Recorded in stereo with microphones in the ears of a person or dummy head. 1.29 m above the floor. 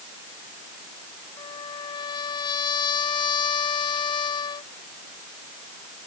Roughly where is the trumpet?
Left.